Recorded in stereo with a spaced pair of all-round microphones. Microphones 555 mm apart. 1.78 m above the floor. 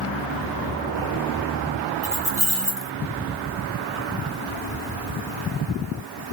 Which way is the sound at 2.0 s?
40° right (ahead or behind).